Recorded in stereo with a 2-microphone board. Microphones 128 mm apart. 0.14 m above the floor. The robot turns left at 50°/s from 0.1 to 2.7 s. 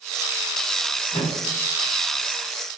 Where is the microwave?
20° left (ahead or behind), 1.3 m.